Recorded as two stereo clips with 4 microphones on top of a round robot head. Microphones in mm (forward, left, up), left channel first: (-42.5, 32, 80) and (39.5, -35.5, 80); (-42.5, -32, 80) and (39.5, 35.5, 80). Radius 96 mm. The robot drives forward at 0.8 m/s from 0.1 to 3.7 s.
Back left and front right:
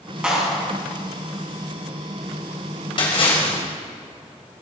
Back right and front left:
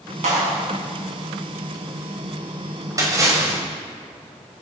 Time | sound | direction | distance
0.2 | a clap | 40° left | 6 m
3.0 | a splash | 100° left | 4 m